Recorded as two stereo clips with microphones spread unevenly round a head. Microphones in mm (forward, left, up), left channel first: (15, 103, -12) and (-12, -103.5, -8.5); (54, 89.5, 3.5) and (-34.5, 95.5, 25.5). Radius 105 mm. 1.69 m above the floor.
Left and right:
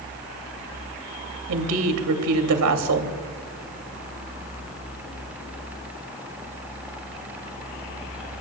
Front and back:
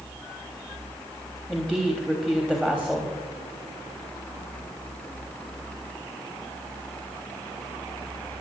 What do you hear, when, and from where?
1.5 s a woman speaking: 95° right, 2.5 m